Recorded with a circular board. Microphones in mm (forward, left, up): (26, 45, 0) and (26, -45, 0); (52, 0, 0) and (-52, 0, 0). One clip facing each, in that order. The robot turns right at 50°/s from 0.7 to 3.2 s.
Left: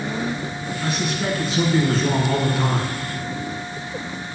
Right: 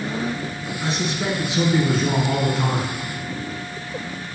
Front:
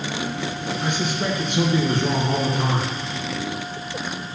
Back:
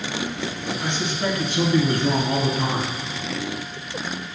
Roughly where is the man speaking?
Right.